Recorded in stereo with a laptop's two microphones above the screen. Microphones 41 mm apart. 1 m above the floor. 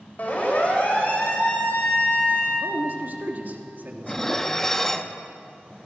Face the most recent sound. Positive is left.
turn(degrees=10)  # may be behind; listen again after turning